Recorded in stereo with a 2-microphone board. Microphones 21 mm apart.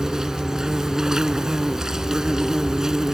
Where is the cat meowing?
I don't hear a cat meowing.